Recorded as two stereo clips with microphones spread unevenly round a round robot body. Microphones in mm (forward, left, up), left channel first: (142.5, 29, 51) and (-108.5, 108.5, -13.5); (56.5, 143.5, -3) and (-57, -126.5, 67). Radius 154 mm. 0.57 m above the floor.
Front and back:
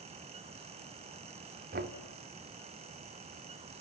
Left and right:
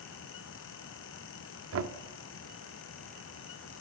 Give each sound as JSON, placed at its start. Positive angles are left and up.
{"t": 1.7, "sound": "knocking", "azimuth_deg": -160, "distance_m": 1.4}